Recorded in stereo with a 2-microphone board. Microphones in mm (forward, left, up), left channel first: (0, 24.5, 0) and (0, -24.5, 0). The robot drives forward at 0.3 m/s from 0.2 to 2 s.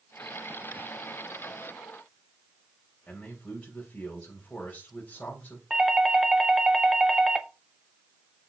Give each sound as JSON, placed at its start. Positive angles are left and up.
{"t": 3.1, "sound": "a man speaking", "side_deg": 30, "distance_m": 3.5}
{"t": 5.7, "sound": "a doorbell", "side_deg": -10, "distance_m": 1.4}